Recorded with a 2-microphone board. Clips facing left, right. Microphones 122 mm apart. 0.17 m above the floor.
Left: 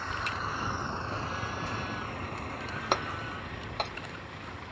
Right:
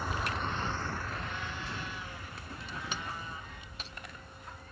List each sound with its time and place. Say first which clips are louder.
0.0 s a vehicle: right 1 dB; 10° right (ahead or behind); by 4.7 s 80° left
2.9 s breaking glass: left 12 dB; 65° left (ahead or behind)